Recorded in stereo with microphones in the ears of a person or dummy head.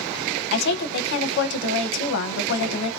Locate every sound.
0.5 s a woman speaking: 60° left (ahead or behind), 0.7 m